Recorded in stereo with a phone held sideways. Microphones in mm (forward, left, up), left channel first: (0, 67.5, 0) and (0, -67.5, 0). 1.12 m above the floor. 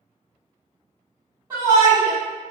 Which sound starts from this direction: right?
A shout, at 1.5 s.